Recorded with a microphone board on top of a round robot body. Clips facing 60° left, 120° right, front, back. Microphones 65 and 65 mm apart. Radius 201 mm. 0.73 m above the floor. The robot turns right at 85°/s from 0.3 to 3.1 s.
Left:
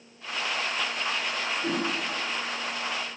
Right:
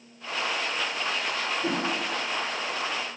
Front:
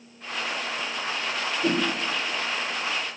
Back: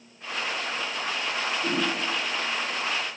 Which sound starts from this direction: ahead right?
A whoosh, at 1.6 s.